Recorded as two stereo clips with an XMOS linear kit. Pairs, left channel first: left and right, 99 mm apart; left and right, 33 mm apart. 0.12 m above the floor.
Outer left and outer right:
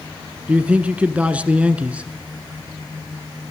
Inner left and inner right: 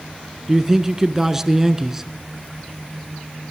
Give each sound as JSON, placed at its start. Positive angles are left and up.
{"t": 0.5, "sound": "a man speaking", "side_deg": -15, "distance_m": 1.1}